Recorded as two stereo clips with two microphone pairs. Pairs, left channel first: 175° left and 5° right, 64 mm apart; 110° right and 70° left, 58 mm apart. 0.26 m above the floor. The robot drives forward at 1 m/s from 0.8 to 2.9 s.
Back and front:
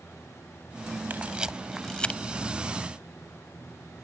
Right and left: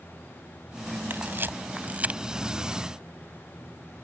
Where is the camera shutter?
45° left; by 2.2 s 120° left.